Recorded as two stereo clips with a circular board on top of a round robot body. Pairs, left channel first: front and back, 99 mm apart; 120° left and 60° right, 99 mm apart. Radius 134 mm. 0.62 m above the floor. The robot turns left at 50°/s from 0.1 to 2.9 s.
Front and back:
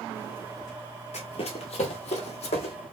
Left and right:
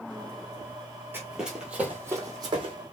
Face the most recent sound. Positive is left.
turn(degrees=-30)